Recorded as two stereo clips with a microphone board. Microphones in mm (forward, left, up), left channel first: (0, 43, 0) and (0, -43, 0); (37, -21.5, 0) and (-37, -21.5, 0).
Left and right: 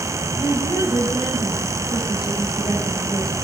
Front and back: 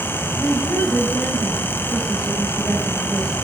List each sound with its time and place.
0.4 s a woman speaking: 80° left, 6 m